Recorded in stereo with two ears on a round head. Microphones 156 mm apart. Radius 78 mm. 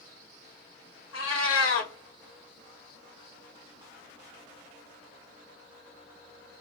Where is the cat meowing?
90° left, 0.7 m.